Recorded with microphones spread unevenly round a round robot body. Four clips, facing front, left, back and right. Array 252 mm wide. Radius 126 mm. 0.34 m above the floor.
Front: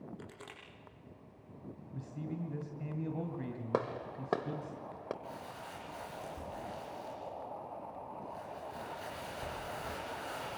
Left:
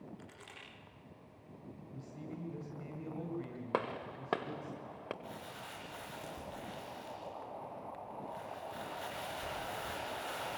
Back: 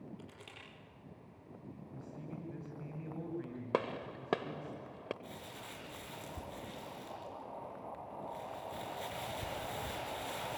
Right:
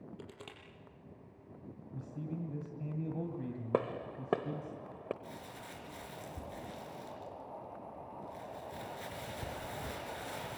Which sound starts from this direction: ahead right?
A man speaking, at 1.9 s.